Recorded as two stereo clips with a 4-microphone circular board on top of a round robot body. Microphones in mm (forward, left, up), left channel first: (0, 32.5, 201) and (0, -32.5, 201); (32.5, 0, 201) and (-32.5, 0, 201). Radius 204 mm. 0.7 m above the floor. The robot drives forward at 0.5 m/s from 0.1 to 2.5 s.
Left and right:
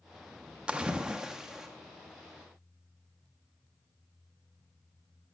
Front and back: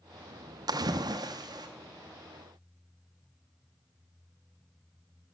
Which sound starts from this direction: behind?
A splash, at 0.7 s.